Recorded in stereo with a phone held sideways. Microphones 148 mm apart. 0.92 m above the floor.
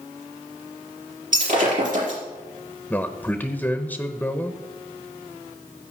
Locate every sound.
1.3 s breaking glass: 65° right (ahead or behind), 5 m
2.9 s a man speaking: 10° left (ahead or behind), 0.9 m